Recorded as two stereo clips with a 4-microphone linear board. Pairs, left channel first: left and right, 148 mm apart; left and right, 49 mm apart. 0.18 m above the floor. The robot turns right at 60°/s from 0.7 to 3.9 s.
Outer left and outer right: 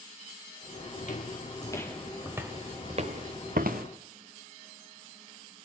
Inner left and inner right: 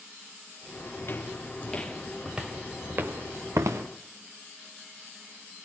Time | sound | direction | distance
1.0 | footsteps | 60° left (ahead or behind) | 3 m